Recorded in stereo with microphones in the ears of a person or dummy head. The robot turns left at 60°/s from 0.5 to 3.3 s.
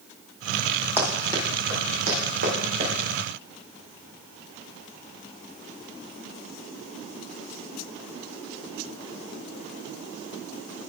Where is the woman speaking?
No woman speaking in this recording.